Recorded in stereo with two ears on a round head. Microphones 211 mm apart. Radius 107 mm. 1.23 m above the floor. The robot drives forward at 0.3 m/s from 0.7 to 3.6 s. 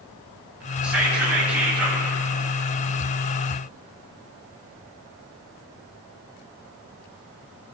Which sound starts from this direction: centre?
Whispering, at 0.8 s.